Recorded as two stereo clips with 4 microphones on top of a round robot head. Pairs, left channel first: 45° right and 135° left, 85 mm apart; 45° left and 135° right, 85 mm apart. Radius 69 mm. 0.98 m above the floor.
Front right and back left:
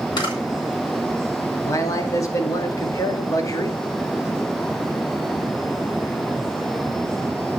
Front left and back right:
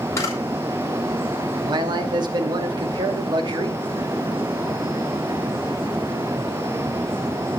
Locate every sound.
0.2 s a camera shutter: 10° right, 5 m
1.6 s a man speaking: 100° right, 2.5 m